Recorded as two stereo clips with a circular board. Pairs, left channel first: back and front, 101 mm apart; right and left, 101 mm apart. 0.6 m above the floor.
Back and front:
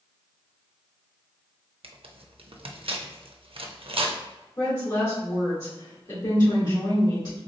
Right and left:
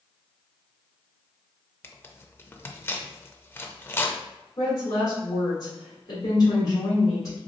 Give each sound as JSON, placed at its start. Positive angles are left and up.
{"t": 1.8, "sound": "tearing paper", "azimuth_deg": -25, "distance_m": 0.5}
{"t": 4.6, "sound": "a woman speaking", "azimuth_deg": -140, "distance_m": 1.8}